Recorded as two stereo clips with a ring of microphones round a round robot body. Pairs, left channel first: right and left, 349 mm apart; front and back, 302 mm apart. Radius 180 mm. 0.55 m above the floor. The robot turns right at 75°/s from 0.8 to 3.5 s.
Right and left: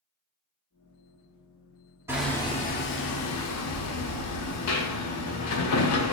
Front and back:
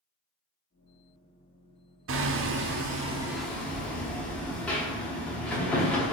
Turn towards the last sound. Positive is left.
turn(degrees=-85)